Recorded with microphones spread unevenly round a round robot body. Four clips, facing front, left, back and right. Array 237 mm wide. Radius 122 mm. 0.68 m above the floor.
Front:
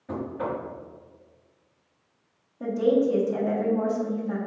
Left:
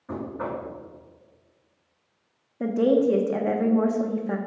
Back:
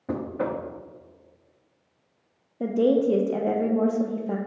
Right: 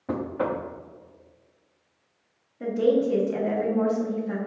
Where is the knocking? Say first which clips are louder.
Right 4 dB, back 2 dB; 130° right, 0.7 m.